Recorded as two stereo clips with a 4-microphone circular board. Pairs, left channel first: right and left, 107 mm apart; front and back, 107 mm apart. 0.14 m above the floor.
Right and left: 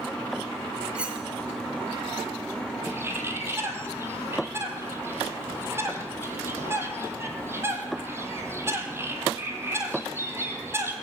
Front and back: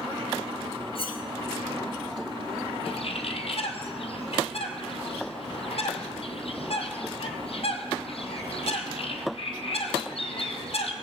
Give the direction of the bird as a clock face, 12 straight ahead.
11 o'clock.